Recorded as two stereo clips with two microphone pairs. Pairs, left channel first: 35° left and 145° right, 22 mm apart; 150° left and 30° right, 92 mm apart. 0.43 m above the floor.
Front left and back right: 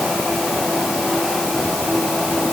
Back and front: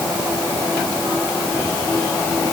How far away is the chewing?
I don't hear chewing.